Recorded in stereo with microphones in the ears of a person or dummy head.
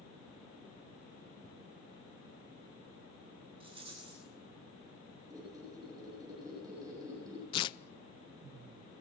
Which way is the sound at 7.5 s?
25° left (ahead or behind).